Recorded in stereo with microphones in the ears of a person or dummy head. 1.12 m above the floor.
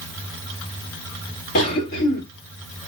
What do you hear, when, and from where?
1.6 s a cough: 50° left (ahead or behind), 1.4 m